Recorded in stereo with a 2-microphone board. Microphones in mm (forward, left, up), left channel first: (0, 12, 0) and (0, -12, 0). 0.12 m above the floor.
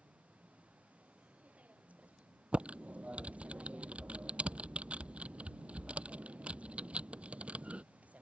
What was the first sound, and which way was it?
A vehicle, 90° right.